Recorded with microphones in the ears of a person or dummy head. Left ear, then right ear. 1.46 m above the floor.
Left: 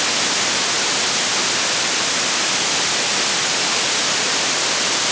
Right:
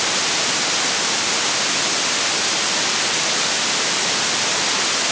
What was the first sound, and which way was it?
Only background noise.